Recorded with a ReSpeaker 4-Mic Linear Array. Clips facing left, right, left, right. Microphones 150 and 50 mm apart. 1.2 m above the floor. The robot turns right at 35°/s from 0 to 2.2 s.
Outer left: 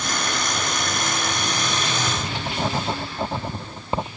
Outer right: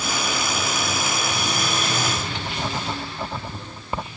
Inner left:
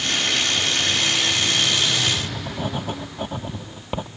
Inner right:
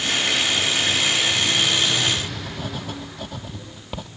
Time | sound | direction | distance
2.1 | writing | 20° left (ahead or behind) | ?